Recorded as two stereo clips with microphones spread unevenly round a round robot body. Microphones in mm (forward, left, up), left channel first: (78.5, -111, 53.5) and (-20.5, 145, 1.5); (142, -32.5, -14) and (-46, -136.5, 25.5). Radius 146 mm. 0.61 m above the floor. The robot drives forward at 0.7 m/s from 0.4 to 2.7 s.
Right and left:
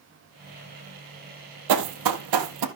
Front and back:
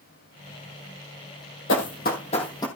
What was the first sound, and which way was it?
Running footsteps, 80° left.